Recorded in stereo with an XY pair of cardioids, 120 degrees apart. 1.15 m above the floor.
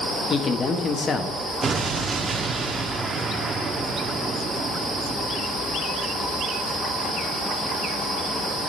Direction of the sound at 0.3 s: 40° left.